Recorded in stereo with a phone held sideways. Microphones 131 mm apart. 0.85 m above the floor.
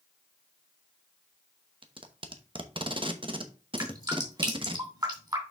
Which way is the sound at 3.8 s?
30° right (ahead or behind).